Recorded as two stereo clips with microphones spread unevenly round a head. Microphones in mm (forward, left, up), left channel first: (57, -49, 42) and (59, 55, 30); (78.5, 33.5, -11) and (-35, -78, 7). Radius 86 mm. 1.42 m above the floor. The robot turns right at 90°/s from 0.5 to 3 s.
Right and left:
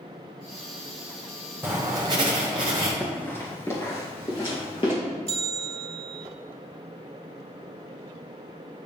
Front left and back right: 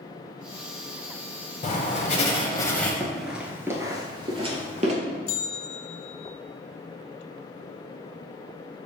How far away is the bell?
About 2.0 m.